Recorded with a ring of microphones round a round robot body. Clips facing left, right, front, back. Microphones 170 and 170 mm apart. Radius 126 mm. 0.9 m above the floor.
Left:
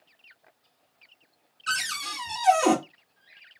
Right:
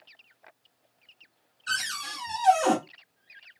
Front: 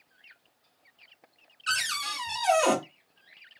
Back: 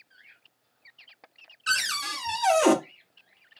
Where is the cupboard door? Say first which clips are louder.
Left 2 dB, back 2 dB; 140° left, 1.1 m.